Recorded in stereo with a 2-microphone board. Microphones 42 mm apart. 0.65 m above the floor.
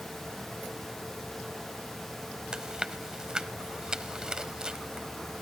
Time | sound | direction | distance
2.5 | chewing | 20° right (ahead or behind) | 0.6 m